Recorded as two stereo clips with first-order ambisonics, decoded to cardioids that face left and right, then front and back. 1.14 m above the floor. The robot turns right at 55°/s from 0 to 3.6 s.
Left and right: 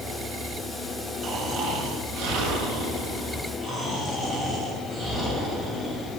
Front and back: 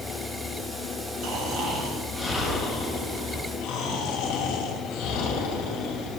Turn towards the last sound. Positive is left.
turn(degrees=-20)